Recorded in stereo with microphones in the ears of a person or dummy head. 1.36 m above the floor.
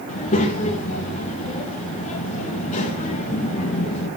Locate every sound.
0.1 s a child speaking: 35° left (ahead or behind), 0.9 m